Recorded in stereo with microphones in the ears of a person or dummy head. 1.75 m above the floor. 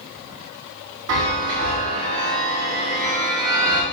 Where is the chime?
65° right (ahead or behind), 1.9 m.